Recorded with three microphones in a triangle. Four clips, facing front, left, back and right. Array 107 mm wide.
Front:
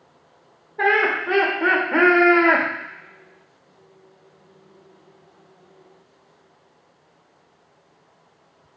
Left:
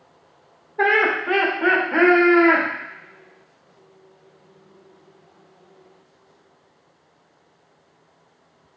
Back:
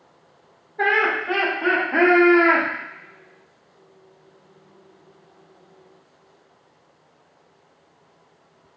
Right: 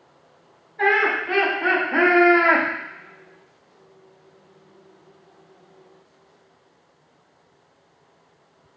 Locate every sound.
0.8 s laughter: 65° left, 1.7 m; by 2.7 s 10° right, 1.6 m